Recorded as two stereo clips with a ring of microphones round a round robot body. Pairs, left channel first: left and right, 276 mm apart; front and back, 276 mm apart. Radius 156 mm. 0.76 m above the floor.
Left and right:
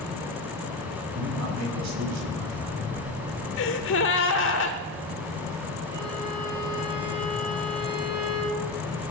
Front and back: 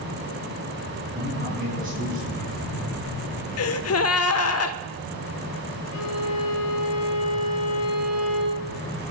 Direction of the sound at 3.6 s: 35° left.